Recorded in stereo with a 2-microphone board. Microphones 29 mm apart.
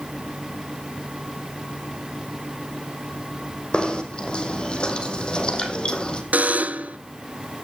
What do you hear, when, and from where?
3.7 s knocking: 35° left (ahead or behind), 5 m
6.3 s a buzzer: 65° right (ahead or behind), 2 m